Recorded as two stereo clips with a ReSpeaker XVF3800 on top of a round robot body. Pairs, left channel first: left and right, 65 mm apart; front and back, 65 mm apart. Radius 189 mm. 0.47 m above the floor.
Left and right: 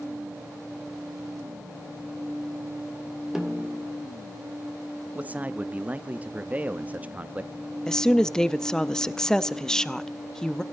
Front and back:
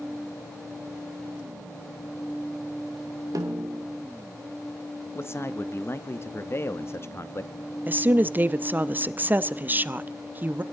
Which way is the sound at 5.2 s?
30° right.